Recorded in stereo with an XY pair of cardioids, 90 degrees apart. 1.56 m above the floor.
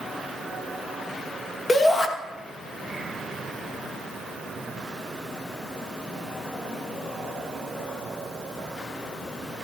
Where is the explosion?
I don't hear an explosion.